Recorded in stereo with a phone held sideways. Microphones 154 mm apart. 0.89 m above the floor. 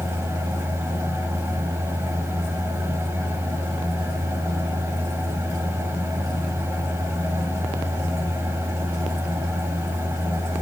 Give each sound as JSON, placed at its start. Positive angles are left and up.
{"t": 0.0, "sound": "a fan", "side_deg": -15, "distance_m": 1.9}